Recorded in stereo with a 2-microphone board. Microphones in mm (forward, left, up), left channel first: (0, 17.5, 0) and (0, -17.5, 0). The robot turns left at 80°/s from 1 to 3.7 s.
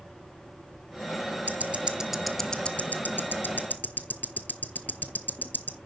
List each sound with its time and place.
1.5 s ticking: 60° right (ahead or behind), 1.0 m; by 5.8 s 60° left (ahead or behind), 1.0 m